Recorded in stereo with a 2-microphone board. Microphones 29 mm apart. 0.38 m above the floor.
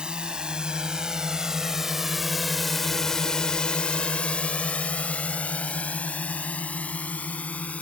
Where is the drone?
30° right (ahead or behind); by 7.8 s 55° left (ahead or behind).